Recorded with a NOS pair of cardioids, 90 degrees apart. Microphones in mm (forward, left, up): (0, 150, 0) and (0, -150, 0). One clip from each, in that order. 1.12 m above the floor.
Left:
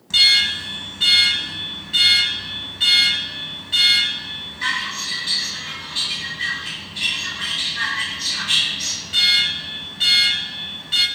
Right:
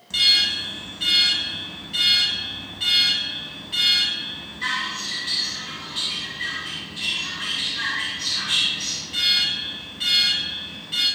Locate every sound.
0.1 s an alarm: 40° left, 7.5 m